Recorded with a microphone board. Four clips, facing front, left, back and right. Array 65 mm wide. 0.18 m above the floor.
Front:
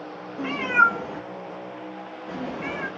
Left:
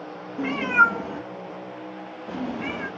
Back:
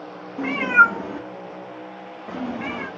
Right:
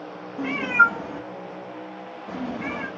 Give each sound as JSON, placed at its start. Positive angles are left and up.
{"t": 0.4, "sound": "a cat meowing", "azimuth_deg": 160, "distance_m": 1.7}